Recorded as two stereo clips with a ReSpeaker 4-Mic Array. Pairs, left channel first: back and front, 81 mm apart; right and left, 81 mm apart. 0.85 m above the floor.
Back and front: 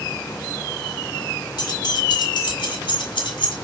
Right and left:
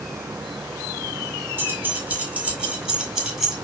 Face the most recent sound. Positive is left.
turn(degrees=175)